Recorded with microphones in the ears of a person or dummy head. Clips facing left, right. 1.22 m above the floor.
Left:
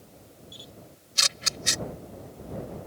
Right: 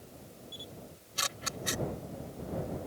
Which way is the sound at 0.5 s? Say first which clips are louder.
Even; 35° left (ahead or behind).